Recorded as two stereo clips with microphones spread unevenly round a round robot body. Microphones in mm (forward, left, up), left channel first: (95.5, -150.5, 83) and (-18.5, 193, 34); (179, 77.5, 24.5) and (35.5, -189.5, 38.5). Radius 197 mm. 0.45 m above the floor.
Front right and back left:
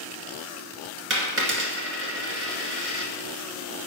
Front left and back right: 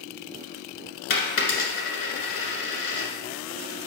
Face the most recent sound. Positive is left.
turn(degrees=50)